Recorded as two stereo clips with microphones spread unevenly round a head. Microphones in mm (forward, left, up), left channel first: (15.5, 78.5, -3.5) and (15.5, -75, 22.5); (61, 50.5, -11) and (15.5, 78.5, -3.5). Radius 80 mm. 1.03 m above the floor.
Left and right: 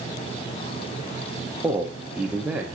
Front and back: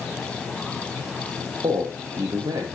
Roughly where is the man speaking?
Behind.